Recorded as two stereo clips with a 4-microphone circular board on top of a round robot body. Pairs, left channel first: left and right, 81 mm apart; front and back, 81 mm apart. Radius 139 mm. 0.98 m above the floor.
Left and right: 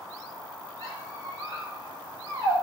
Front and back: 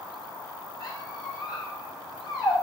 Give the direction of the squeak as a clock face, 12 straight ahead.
1 o'clock.